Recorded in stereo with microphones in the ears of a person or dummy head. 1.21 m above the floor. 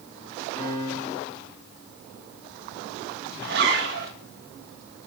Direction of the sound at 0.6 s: 10° left (ahead or behind).